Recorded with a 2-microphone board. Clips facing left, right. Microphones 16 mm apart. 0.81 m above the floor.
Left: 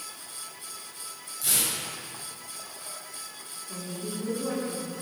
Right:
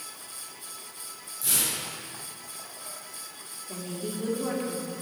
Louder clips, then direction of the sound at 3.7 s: Right 1 dB; 55° right (ahead or behind).